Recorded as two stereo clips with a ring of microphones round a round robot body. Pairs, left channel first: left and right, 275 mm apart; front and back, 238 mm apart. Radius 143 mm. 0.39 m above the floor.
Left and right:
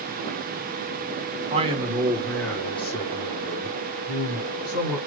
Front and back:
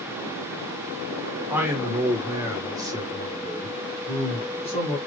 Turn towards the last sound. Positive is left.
turn(degrees=105)